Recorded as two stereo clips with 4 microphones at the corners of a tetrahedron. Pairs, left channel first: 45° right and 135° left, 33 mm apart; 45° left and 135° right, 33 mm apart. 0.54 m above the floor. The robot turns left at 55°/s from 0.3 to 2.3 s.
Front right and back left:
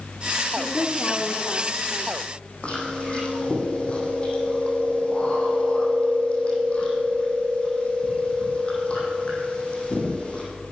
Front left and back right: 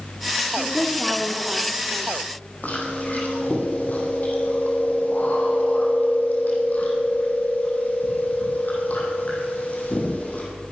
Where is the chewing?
5° left, 5 m.